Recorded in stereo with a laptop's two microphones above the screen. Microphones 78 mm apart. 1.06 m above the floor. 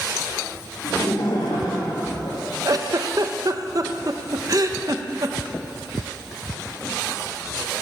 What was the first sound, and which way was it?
Laughter, 75° left (ahead or behind).